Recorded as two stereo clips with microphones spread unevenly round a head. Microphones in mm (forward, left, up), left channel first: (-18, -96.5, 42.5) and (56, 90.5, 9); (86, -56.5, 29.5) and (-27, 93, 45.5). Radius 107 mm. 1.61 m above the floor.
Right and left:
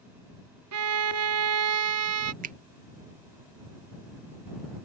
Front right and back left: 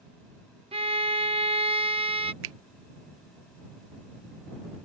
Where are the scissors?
No scissors in this recording.